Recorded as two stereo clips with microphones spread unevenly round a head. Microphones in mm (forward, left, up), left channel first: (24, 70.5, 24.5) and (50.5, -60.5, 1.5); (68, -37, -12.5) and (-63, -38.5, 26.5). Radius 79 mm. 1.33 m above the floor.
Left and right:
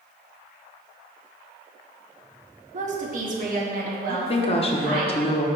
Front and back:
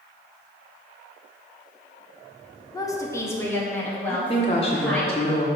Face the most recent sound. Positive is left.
turn(degrees=55)